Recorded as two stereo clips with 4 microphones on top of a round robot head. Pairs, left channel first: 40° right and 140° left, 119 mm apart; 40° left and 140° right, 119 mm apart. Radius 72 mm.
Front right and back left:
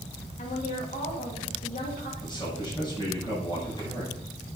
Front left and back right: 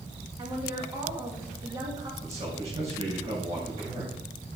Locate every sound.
0.4 s a woman speaking: 75° right, 2 m
2.2 s a man speaking: 95° right, 7 m